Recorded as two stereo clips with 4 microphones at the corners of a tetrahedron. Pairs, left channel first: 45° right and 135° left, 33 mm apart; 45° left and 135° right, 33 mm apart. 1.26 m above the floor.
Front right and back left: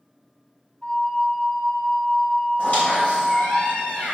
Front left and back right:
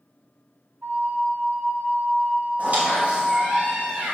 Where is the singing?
No singing in this recording.